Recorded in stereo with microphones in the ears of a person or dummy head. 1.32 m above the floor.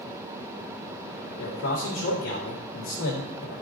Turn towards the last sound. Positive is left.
turn(degrees=70)  # may be behind; listen again after turning